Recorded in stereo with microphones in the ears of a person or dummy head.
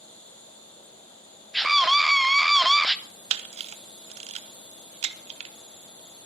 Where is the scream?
Centre (ahead or behind), 0.7 m.